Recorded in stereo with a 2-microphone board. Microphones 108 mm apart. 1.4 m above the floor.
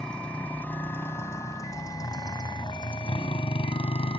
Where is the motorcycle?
5° left (ahead or behind); by 4.2 s 65° left (ahead or behind).